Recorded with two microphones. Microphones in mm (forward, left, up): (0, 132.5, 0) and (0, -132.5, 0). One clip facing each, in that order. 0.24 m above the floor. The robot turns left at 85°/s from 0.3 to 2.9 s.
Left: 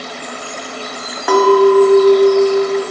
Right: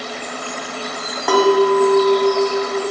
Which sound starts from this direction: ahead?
A clink, at 1.3 s.